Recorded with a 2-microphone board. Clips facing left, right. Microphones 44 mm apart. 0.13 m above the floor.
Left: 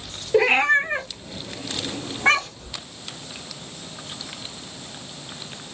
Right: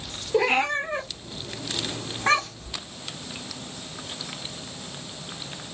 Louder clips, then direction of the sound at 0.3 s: Left 5 dB; 35° left (ahead or behind).